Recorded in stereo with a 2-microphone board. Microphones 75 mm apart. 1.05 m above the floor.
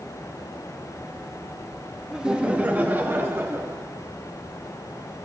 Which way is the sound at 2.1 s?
10° right (ahead or behind).